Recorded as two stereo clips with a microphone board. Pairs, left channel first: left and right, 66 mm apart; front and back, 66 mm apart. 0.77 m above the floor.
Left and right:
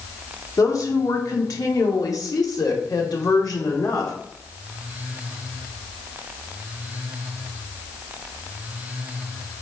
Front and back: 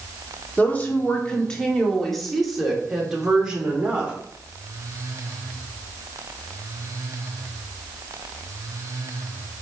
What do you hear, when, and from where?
0.6 s a woman speaking: 60° left, 2.5 m; by 4.2 s 110° left, 3 m